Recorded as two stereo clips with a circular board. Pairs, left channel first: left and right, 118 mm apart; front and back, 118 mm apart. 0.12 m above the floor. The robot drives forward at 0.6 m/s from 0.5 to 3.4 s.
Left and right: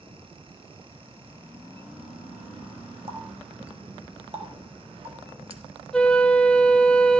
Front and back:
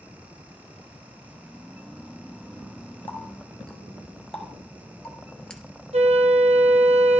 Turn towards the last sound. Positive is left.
turn(degrees=175)